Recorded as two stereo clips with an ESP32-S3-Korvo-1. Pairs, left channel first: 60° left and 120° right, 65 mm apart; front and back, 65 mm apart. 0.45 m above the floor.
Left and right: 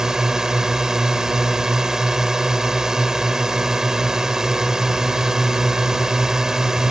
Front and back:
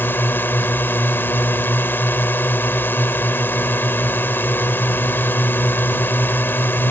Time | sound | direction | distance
0.0 | a drone | 40° right | ?